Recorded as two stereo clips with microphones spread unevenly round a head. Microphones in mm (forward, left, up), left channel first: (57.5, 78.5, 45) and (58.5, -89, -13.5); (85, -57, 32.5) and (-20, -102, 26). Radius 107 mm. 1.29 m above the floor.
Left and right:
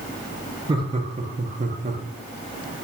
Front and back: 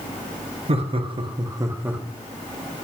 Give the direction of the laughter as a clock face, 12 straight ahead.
5 o'clock.